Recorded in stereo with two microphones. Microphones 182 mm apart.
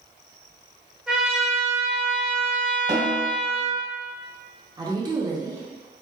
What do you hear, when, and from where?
1.1 s a trumpet: 5° right (ahead or behind), 1.2 m
2.9 s a snare drum: 60° right (ahead or behind), 1.8 m
4.8 s a woman speaking: 20° right (ahead or behind), 0.7 m